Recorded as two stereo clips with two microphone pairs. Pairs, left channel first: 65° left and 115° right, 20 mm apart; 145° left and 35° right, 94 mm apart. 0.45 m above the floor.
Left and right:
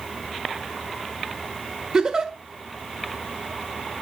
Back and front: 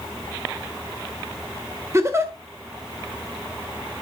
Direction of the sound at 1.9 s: 85° right.